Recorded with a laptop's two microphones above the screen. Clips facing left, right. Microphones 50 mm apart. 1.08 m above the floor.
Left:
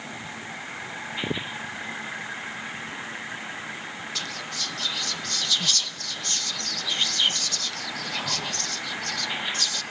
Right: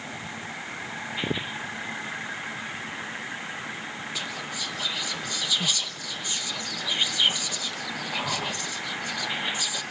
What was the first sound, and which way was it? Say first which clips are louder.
Whispering: even; 10° right (ahead or behind).